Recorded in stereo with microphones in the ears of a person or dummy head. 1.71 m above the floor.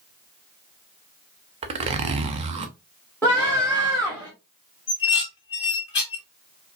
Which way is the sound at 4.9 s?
25° left (ahead or behind).